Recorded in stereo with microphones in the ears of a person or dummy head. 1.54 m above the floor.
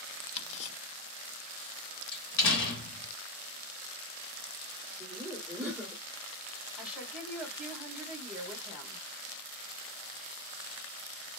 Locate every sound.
0.4 s ticking: 40° left (ahead or behind), 0.5 m
2.1 s a door slam: 65° left (ahead or behind), 0.9 m
5.0 s laughter: 10° right (ahead or behind), 1.4 m
6.8 s a woman speaking: 5° right (ahead or behind), 1.6 m